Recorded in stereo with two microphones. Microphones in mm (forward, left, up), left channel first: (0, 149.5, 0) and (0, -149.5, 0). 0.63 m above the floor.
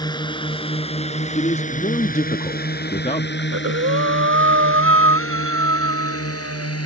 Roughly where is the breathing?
Right.